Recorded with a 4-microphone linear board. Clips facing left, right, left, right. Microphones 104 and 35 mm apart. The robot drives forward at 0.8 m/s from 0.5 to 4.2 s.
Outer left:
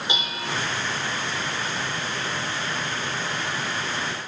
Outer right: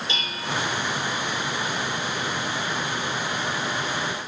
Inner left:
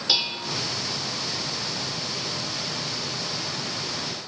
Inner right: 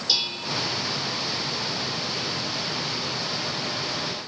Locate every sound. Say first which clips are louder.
0.1 s dishes clattering: outer left 1 dB, inner left 1 dB; 20° left (ahead or behind), 3 m